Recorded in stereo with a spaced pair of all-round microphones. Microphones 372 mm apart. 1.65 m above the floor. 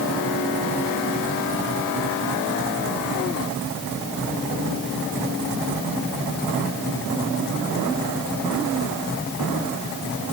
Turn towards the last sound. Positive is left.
No sound to turn to.